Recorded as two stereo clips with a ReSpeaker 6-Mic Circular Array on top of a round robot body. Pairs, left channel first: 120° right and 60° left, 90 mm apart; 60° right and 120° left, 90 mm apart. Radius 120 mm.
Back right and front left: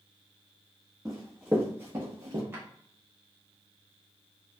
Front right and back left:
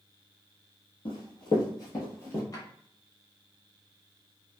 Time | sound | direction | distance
1.1 | running footsteps | 25° right | 1.2 m
2.5 | a drawer | 5° right | 0.9 m